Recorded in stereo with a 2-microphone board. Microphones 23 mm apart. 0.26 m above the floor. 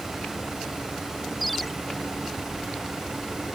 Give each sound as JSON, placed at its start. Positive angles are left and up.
{"t": 1.4, "sound": "a ringtone", "side_deg": 5}